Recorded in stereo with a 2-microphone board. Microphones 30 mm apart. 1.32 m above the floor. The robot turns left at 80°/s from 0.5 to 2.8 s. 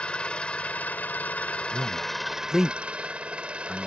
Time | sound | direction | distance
0.0 | an engine running | 140° left | ?
1.7 | a man speaking | 75° right (ahead or behind) | ?